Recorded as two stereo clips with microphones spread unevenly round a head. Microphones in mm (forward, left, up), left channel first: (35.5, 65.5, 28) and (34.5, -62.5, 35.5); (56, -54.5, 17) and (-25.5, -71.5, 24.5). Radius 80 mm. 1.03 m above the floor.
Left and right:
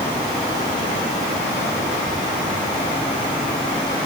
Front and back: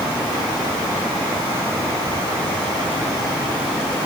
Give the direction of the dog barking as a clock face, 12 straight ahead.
I don't hear a dog barking.